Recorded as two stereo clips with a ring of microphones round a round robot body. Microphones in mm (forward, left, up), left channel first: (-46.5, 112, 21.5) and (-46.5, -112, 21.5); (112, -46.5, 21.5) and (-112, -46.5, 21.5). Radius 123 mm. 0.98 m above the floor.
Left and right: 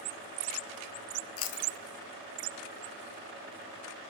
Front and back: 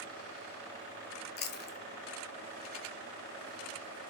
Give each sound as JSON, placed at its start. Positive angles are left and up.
{"t": 1.4, "sound": "chewing", "azimuth_deg": 55, "distance_m": 0.8}